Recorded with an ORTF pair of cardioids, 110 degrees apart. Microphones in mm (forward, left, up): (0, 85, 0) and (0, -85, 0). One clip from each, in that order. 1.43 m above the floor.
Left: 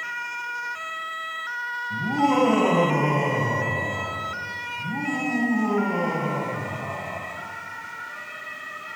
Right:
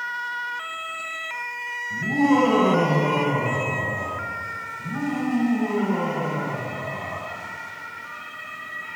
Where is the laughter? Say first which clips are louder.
Right 2 dB; 15° left, 1.7 m.